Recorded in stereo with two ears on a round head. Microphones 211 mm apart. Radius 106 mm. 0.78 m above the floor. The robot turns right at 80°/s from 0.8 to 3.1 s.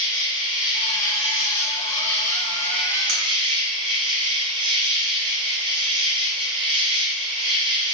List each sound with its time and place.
0.0 s an insect: 20° left, 1.2 m; by 7.9 s 155° right, 1.2 m
3.1 s cutlery clinking: 80° right, 1.6 m; by 3.2 s 75° right (ahead or behind), 1.6 m